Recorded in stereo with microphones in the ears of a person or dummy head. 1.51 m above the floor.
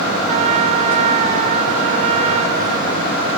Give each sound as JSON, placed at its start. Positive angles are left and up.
{"t": 0.3, "sound": "a trumpet", "side_deg": -35}